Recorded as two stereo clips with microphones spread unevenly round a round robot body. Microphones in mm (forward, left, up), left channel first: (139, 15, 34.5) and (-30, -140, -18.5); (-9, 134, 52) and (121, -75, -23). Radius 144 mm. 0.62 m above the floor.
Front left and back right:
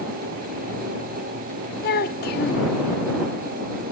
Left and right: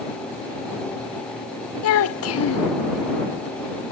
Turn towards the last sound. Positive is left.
turn(degrees=95)